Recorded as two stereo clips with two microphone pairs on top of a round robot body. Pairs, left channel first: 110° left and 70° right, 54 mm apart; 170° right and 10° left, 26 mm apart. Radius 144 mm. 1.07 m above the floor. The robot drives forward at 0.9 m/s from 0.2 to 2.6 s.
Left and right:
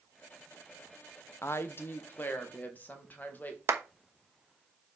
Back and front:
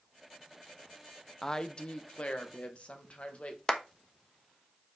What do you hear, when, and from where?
1.4 s a woman speaking: 135° left, 0.8 m; by 3.6 s 165° left, 1.6 m
3.7 s a clap: 110° right, 1.1 m